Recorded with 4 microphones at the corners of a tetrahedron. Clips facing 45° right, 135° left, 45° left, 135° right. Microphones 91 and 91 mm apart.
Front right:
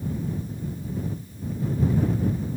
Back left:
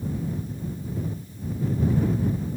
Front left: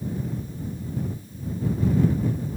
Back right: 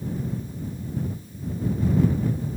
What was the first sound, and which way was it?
Only background noise.